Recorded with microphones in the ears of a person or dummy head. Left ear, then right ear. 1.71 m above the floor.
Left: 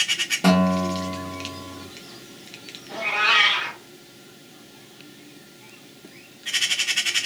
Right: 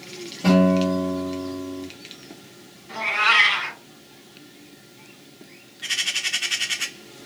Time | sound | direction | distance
0.4 | a guitar | 30° left (ahead or behind) | 1.1 m
2.9 | a cat meowing | 50° right (ahead or behind) | 2.5 m